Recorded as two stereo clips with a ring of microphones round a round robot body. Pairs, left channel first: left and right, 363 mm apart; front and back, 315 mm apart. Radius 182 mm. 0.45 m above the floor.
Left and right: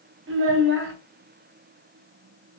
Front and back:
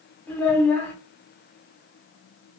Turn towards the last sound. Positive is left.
turn(degrees=-80)